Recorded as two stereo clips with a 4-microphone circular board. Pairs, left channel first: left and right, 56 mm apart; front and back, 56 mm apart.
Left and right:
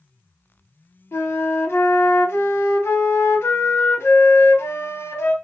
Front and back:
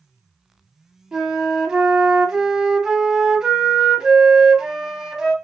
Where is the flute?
105° left, 0.7 m.